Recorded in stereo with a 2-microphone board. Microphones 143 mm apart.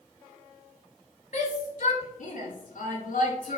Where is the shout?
60° left (ahead or behind), 5 m; by 3.6 s 75° left (ahead or behind), 4.5 m.